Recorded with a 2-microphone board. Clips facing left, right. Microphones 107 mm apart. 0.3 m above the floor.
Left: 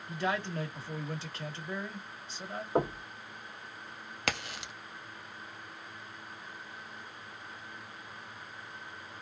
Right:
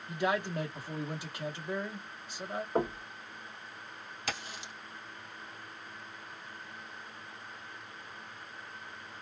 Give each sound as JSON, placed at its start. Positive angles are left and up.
{"t": 0.1, "sound": "a man speaking", "side_deg": -15, "distance_m": 1.2}
{"t": 2.8, "sound": "knocking", "side_deg": 10, "distance_m": 1.1}
{"t": 4.3, "sound": "a crack", "side_deg": 75, "distance_m": 0.7}